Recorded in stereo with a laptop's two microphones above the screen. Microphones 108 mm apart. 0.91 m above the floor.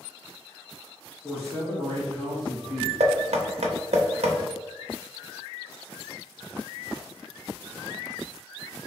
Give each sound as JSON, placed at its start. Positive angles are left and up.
{"t": 1.2, "sound": "a man speaking", "side_deg": -5, "distance_m": 1.1}
{"t": 3.0, "sound": "knocking", "side_deg": -80, "distance_m": 0.6}